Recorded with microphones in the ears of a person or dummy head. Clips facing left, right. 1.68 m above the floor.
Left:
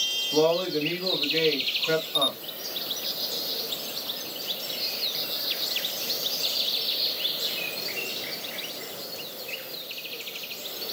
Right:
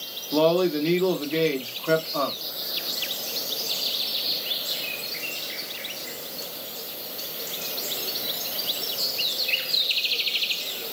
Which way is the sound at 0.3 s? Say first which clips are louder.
Right 2 dB; 70° right (ahead or behind).